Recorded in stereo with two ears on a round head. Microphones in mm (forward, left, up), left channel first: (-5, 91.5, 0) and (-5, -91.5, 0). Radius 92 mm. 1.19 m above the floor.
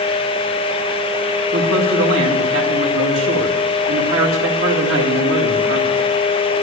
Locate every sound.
1.5 s a man speaking: 70° right (ahead or behind), 2 m